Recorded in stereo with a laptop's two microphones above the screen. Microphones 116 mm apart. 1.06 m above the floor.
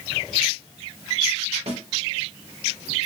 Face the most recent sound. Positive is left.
turn(degrees=-75)  # may be behind; listen again after turning